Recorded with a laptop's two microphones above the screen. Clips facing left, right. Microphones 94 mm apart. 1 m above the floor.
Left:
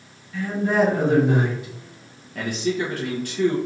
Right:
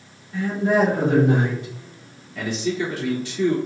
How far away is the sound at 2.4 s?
About 0.7 m.